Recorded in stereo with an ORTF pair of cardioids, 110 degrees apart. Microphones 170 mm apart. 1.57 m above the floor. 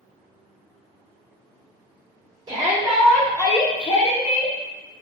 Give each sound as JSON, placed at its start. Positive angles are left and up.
{"t": 2.5, "sound": "a shout", "azimuth_deg": -25, "distance_m": 0.7}